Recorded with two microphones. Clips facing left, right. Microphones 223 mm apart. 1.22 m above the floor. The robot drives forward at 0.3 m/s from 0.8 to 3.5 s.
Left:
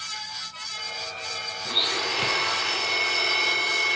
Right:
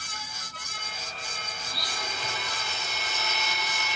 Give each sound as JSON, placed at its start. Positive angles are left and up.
{"t": 1.6, "sound": "a blender", "side_deg": 70, "distance_m": 0.7}